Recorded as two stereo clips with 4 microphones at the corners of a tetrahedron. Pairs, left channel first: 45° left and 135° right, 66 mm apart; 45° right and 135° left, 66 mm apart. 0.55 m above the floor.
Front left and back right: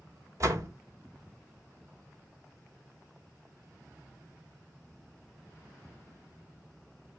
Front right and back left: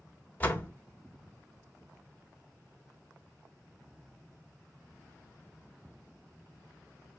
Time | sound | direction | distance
0.4 | a door slam | 105° right | 1.5 m